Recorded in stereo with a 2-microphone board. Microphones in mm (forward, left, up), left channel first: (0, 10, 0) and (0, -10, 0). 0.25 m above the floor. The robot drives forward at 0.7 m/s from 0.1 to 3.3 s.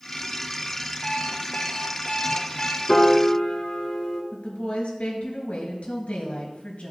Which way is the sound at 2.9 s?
55° left (ahead or behind).